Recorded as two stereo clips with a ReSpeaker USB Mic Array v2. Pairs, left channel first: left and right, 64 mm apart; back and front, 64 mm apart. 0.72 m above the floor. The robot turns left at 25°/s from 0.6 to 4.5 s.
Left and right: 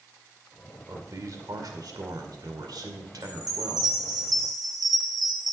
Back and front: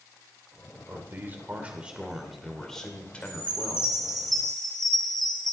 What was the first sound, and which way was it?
A man speaking, 50° right.